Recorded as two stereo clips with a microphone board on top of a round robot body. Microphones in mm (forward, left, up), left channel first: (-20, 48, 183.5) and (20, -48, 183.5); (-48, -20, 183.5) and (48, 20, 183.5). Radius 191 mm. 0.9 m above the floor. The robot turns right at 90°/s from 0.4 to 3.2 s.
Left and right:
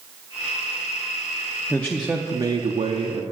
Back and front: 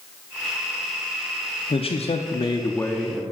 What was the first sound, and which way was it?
A man speaking, straight behind.